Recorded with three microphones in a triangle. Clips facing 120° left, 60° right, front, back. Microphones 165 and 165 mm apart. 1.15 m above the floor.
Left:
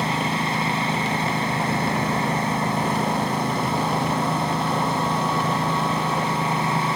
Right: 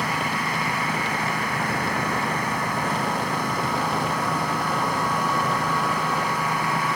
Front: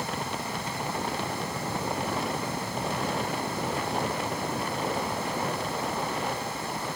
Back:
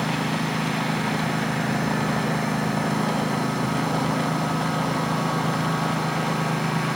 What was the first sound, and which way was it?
A lawn mower, 175° right.